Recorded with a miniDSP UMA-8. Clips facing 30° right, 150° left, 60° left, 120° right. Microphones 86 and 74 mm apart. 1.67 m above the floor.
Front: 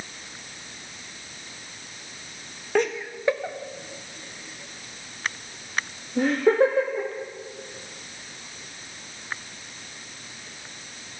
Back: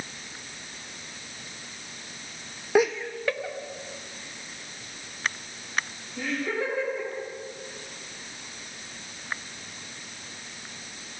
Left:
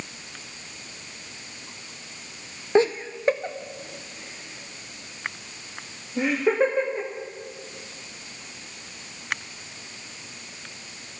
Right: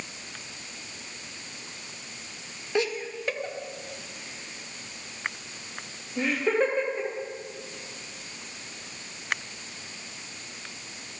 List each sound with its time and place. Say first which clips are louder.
2.8 s laughter: back 2 dB, left 7 dB; 80° left, 0.6 m; by 7.1 s 15° right, 2.5 m